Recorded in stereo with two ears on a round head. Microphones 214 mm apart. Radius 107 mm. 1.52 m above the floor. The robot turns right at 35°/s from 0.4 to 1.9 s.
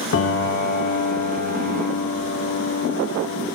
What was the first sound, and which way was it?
A piano, 55° left.